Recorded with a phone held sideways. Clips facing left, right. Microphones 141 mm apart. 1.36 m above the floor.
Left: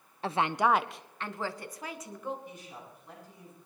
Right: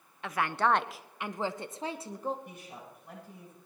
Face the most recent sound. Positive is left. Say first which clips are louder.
# even
turn(degrees=-60)  # may be behind; listen again after turning